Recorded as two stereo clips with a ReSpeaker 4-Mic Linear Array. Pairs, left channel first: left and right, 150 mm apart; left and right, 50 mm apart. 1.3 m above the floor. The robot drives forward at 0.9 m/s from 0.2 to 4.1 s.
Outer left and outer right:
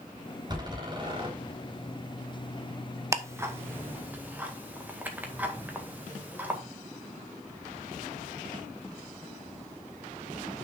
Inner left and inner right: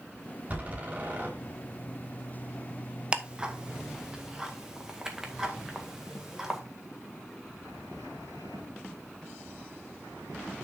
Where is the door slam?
30° right (ahead or behind), 4.5 m; by 1.3 s 35° right (ahead or behind), 4 m.